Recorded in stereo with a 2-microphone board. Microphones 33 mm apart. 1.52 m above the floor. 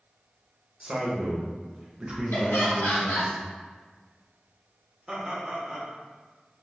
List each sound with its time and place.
0.8 s a man speaking: 30° right (ahead or behind), 0.8 m
2.3 s laughter: 75° left (ahead or behind), 1.5 m
5.1 s laughter: 10° right (ahead or behind), 0.9 m